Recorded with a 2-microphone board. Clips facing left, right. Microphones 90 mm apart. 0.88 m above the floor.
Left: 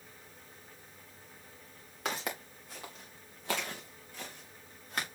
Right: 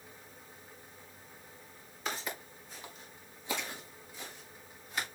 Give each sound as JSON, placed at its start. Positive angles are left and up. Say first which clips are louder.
{"t": 2.0, "sound": "footsteps", "louder": "left 2 dB", "side_deg": 70, "distance_m": 3.5}